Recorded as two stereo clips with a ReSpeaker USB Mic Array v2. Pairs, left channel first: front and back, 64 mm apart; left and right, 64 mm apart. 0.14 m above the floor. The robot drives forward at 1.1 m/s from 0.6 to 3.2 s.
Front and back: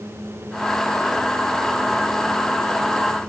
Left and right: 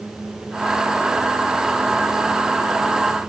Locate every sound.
Only background noise.